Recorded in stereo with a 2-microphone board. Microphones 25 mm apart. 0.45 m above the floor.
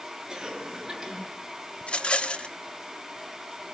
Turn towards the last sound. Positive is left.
turn(degrees=45)  # may be behind; listen again after turning